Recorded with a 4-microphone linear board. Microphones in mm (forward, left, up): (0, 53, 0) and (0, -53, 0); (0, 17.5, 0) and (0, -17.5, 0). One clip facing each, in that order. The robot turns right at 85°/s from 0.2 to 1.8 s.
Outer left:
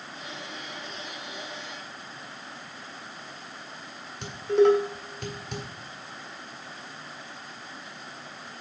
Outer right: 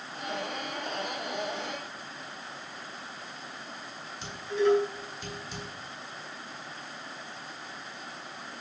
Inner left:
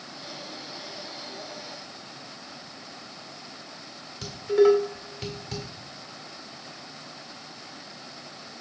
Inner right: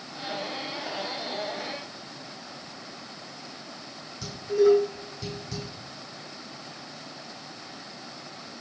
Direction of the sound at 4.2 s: 65° left (ahead or behind).